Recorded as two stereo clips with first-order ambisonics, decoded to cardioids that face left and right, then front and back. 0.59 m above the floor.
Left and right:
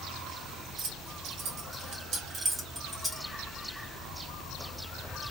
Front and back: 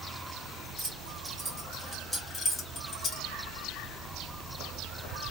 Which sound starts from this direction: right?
Keys jangling, at 0.8 s.